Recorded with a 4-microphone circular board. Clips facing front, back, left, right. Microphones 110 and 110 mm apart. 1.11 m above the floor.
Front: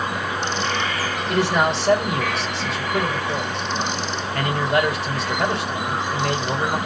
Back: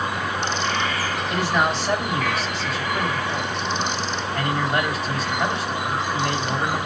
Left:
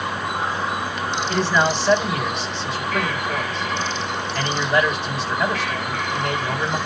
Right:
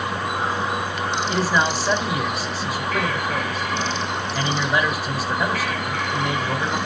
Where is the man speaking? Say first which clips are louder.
Front 3 dB, left 2 dB; 5° right, 5 m.